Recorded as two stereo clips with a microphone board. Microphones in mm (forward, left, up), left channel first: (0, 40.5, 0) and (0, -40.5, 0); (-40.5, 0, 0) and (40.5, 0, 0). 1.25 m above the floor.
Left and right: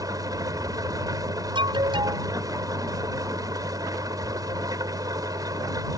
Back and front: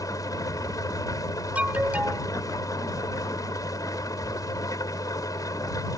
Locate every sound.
0.0 s an engine running: 135° right
1.6 s an alarm: 75° right